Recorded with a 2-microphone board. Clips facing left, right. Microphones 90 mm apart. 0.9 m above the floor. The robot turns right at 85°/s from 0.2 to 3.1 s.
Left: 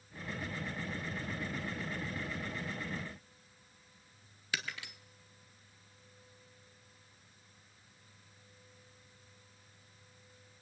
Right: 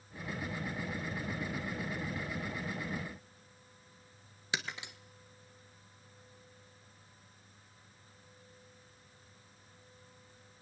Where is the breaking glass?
20° right (ahead or behind), 1.0 m.